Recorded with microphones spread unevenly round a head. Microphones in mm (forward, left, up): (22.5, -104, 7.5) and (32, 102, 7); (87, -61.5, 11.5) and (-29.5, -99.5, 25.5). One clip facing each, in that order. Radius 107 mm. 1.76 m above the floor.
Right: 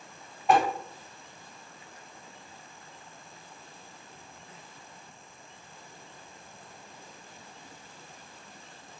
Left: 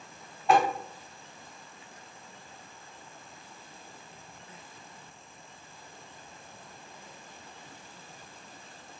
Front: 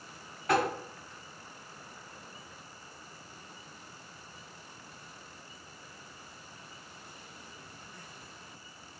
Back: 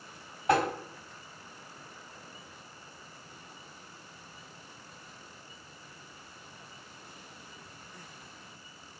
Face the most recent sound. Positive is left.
turn(degrees=-145)